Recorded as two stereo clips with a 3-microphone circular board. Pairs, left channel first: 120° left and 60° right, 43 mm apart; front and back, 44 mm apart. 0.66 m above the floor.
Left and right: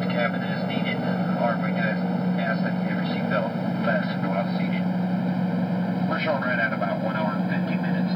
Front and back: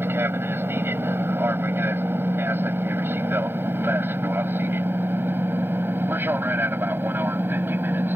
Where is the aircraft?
160° right; by 8.2 s 145° right.